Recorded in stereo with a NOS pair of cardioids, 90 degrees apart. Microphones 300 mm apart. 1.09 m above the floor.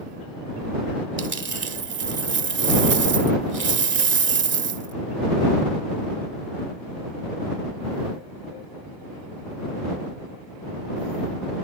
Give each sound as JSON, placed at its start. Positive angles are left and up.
{"t": 1.2, "sound": "a dropped coin", "azimuth_deg": -40}